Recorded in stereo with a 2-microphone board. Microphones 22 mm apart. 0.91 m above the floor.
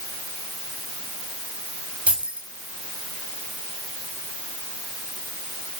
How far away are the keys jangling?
About 5 m.